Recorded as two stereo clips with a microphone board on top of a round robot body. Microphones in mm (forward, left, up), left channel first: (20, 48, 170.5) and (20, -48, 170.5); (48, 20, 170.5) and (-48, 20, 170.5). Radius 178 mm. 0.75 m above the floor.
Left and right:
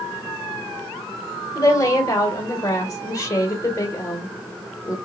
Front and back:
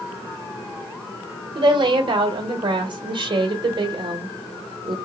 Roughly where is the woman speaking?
Behind left.